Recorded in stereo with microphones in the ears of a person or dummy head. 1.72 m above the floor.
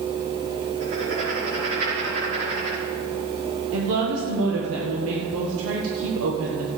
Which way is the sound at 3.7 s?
80° right.